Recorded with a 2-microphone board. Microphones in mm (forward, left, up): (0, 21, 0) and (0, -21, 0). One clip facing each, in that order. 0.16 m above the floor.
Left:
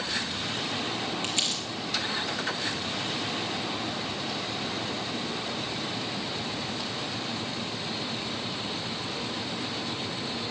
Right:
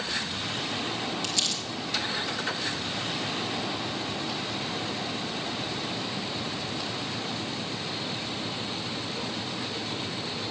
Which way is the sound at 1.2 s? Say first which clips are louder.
Even; 35° left (ahead or behind).